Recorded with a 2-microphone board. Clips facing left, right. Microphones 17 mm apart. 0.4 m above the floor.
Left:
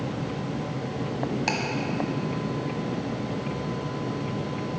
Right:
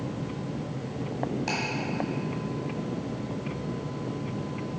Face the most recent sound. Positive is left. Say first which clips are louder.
# left 4 dB
turn(degrees=30)  # may be behind; listen again after turning